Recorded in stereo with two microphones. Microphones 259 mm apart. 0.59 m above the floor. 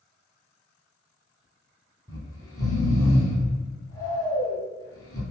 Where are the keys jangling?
I don't hear keys jangling.